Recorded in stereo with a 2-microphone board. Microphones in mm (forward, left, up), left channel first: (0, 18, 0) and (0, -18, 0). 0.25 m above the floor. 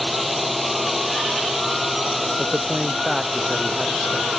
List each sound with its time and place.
0.0 s a drone: centre (ahead or behind)
2.4 s a man speaking: 15° right (ahead or behind)